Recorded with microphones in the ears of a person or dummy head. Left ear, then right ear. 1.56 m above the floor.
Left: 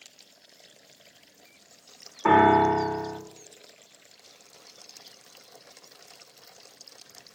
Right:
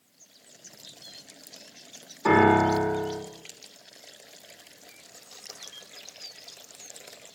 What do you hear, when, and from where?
2.2 s a piano: 40° left (ahead or behind), 2.5 m